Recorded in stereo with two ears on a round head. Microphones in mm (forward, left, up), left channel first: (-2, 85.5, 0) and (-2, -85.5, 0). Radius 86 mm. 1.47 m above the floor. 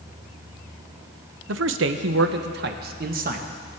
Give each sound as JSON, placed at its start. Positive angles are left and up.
{"t": 1.5, "sound": "a man speaking", "side_deg": -70, "distance_m": 0.8}